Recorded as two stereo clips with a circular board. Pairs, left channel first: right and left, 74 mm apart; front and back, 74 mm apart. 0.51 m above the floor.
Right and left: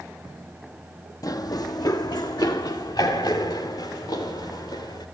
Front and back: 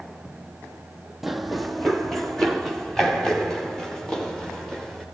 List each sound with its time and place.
1.2 s running footsteps: 90° right, 0.9 m; by 5.0 s 80° right, 4.5 m